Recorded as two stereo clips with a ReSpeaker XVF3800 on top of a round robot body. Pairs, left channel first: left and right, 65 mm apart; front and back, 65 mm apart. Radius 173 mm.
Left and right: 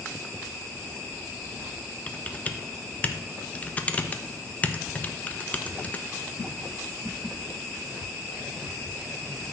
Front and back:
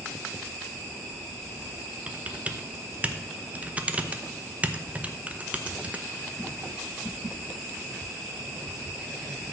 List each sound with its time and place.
2.1 s typing on a keyboard: 135° left, 1.1 m